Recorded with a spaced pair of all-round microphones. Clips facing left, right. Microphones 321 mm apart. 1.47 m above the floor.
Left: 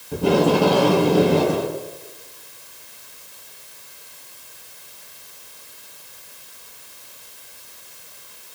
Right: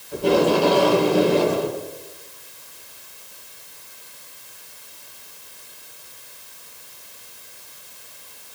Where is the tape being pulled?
70° left (ahead or behind), 5.5 m.